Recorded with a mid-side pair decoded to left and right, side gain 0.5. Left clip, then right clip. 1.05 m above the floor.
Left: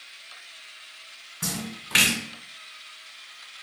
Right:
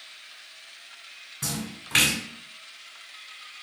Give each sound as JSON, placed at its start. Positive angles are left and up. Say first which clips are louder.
{"t": 1.4, "sound": "a splash", "louder": "left 1 dB", "azimuth_deg": 5, "distance_m": 1.5}